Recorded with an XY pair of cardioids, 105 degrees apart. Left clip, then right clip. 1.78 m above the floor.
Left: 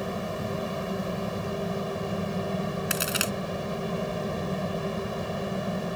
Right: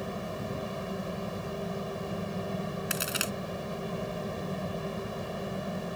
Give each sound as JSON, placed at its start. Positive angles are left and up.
{"t": 0.0, "sound": "a fan", "azimuth_deg": 25}
{"t": 2.9, "sound": "a crack", "azimuth_deg": 20}